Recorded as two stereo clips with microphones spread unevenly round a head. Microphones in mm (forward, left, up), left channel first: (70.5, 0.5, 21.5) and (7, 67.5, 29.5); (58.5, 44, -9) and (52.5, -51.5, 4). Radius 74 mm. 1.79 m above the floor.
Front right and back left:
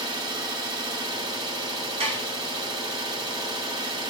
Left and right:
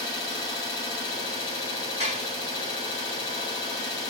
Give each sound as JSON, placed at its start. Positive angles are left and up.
{"t": 0.0, "sound": "an engine running", "azimuth_deg": 140, "distance_m": 1.3}
{"t": 2.0, "sound": "dishes clattering", "azimuth_deg": 125, "distance_m": 2.5}